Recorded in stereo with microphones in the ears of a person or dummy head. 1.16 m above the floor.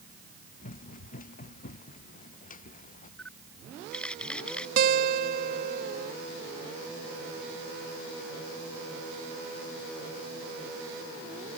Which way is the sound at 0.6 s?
45° left (ahead or behind).